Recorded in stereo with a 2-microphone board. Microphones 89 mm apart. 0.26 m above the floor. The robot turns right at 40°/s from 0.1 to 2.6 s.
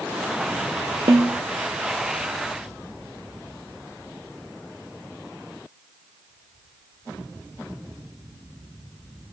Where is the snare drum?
55° right (ahead or behind), 0.9 m; by 1.4 s 45° right (ahead or behind), 0.9 m.